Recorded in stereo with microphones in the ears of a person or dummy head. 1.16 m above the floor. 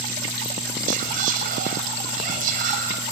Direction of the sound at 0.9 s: 35° right (ahead or behind).